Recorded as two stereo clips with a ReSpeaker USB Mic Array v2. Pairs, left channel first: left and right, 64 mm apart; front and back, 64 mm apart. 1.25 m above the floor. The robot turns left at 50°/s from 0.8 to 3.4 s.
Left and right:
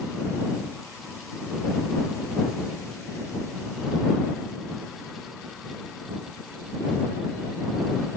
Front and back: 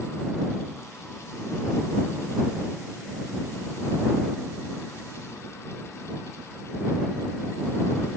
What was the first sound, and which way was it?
Only background noise.